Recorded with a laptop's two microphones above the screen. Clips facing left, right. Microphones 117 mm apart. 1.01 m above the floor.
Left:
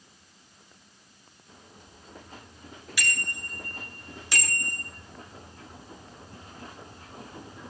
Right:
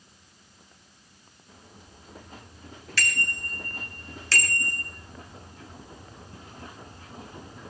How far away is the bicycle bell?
About 4.5 m.